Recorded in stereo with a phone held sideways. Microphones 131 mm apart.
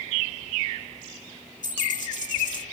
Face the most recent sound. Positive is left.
turn(degrees=70)  # may be behind; listen again after turning